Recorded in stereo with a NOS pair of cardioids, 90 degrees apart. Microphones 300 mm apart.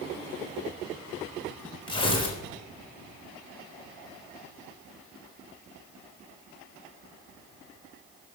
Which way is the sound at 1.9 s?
15° left.